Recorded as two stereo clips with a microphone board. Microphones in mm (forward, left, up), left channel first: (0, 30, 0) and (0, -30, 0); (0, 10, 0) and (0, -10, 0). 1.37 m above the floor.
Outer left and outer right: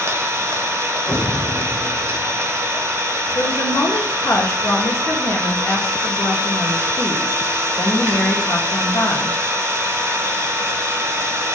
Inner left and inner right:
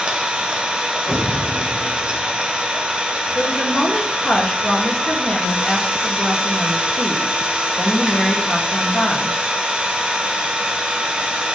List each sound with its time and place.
0.0 s an engine running: 50° right (ahead or behind), 0.8 m
1.1 s an explosion: 65° left (ahead or behind), 1.5 m
3.4 s a woman speaking: 50° left (ahead or behind), 0.8 m